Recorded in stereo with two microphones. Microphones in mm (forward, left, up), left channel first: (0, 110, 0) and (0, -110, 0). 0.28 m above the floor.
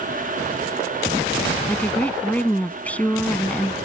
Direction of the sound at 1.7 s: 5° left (ahead or behind).